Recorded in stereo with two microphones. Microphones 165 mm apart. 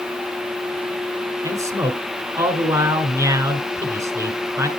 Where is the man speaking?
20° right (ahead or behind), 1.2 m.